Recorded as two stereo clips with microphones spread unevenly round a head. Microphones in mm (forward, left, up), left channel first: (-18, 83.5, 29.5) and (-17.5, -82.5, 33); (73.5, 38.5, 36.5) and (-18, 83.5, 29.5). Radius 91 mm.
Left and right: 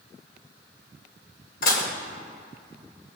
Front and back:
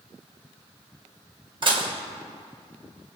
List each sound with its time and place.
1.6 s dishes clattering: 120° left, 2.5 m